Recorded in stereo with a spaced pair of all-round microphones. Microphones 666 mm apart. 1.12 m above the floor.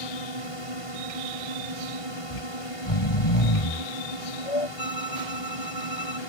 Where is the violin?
40° left (ahead or behind).